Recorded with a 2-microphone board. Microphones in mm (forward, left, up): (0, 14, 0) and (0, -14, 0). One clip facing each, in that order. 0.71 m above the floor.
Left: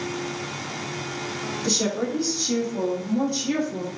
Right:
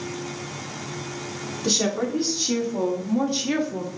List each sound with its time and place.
1.6 s a woman speaking: 55° right (ahead or behind), 1.9 m; by 3.9 s 30° right (ahead or behind), 0.9 m